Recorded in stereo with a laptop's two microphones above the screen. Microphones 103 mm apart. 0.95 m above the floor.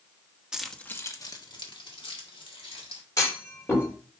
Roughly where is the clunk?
Left.